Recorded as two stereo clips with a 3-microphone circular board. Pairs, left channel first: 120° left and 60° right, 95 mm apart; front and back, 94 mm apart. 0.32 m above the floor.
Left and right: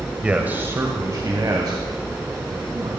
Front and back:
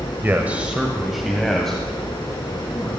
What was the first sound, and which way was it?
A man speaking, 130° right.